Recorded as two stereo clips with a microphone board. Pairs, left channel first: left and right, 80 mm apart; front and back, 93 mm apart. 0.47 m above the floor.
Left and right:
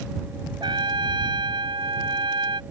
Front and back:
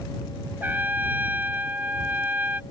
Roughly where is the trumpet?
Right.